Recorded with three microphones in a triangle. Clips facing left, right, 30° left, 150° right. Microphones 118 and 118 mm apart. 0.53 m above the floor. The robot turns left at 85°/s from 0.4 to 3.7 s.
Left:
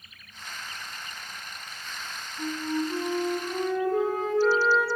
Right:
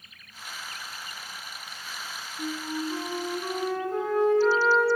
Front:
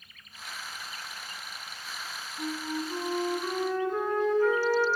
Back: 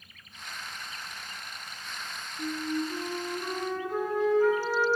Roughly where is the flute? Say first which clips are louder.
Left 3 dB, back 2 dB; ahead left.